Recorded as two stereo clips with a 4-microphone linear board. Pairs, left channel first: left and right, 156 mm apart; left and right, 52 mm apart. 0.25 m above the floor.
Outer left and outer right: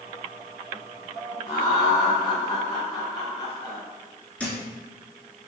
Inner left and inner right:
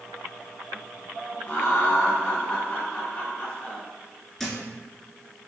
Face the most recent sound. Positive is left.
turn(degrees=10)  # may be behind; listen again after turning